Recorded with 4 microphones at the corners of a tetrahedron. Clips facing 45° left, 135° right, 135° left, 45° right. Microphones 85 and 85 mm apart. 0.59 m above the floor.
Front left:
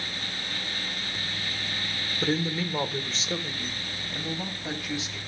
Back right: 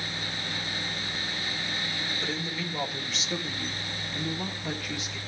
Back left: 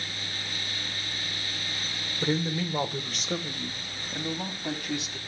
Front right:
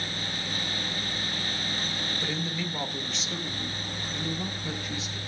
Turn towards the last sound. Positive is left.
turn(degrees=115)